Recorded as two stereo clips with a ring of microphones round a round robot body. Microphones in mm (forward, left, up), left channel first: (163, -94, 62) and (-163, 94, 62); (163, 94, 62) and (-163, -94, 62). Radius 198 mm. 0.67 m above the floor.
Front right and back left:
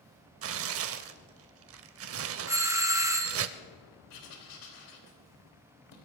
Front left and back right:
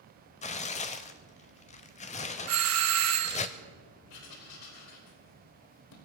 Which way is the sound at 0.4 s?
100° left.